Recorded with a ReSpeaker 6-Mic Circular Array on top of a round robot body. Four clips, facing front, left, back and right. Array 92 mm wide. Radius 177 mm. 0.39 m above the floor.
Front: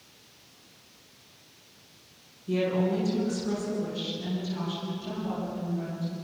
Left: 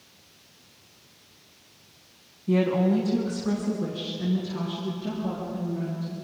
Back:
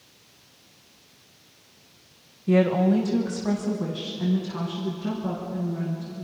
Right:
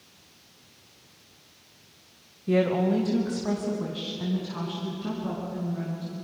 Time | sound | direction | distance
2.5 | a woman speaking | 145° right | 2.5 m